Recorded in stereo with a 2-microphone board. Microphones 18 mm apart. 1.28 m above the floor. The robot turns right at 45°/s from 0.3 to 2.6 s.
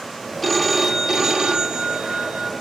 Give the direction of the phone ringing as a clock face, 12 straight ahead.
6 o'clock.